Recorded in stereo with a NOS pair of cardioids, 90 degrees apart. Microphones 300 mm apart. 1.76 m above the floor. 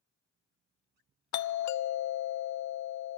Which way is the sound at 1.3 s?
65° left.